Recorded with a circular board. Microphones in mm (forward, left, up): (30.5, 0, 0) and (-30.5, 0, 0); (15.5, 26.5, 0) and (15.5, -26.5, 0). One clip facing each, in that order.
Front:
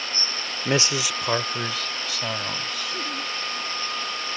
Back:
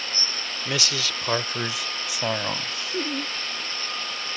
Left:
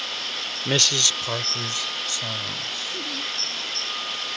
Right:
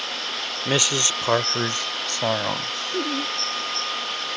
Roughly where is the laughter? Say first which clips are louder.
Back 5 dB, right 6 dB; behind right.